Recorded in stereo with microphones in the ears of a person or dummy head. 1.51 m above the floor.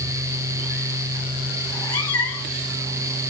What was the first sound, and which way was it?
A cat meowing, 20° left (ahead or behind).